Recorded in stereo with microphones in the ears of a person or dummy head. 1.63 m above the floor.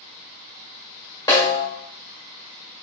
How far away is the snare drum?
About 1.5 m.